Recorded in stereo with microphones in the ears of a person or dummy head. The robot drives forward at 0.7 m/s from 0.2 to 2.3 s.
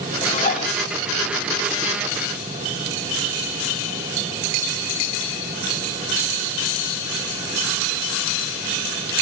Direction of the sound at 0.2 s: 35° left (ahead or behind).